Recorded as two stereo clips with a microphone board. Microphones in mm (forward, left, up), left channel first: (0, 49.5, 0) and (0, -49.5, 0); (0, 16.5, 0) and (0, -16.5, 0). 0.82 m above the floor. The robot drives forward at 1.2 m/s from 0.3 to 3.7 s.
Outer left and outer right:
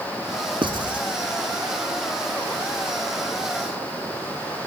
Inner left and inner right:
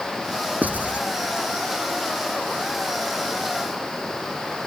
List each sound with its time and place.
0.6 s writing: 60° right (ahead or behind); by 1.1 s 50° right (ahead or behind)